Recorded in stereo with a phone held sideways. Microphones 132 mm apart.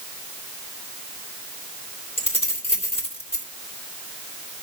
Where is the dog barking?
No dog barking in this recording.